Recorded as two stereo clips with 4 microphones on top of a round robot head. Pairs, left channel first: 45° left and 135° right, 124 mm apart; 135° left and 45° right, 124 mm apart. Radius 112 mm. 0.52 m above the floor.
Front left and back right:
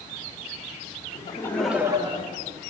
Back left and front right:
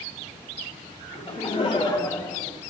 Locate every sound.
1.1 s laughter: 85° left, 1.2 m; by 2.6 s 150° right, 1.6 m